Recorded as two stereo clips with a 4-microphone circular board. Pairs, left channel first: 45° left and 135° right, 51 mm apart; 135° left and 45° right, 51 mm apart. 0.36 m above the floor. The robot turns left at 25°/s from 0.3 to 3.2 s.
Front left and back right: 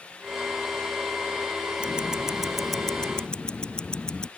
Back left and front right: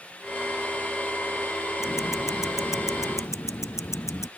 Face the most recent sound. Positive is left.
turn(degrees=120)